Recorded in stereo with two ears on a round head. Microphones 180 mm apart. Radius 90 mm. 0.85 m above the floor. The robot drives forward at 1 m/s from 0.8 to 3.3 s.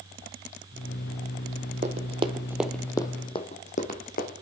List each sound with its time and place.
1.8 s running footsteps: 35° right (ahead or behind), 1.4 m; by 4.3 s 45° left (ahead or behind), 2 m